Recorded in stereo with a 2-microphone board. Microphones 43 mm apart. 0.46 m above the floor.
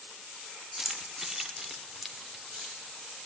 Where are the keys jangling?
10° right (ahead or behind), 0.9 m; by 3.3 s centre (ahead or behind), 3 m.